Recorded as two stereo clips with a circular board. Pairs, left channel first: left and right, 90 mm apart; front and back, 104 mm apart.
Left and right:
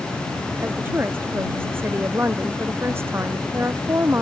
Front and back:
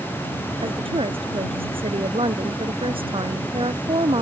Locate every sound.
0.6 s a woman speaking: 155° right; by 4.2 s 150° right